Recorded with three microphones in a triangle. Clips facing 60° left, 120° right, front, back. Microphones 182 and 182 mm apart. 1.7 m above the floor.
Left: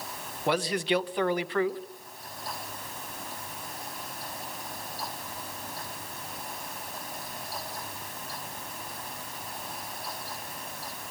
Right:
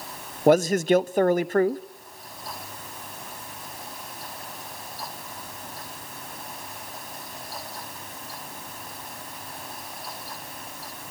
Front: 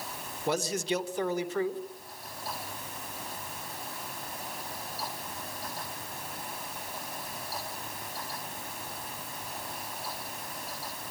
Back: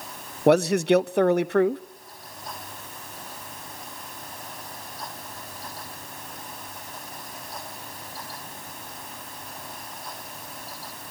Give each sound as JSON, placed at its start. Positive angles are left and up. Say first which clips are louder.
{"t": 0.5, "sound": "a man speaking", "louder": "right 9 dB, back 12 dB", "azimuth_deg": -160, "distance_m": 0.7}